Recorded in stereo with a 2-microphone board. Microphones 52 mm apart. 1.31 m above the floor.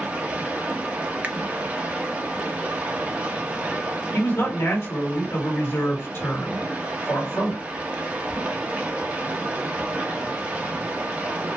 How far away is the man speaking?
About 1.6 m.